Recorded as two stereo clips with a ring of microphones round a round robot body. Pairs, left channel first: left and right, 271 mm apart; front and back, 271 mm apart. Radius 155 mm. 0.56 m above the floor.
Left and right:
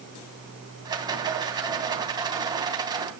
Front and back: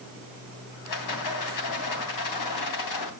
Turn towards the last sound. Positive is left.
turn(degrees=-15)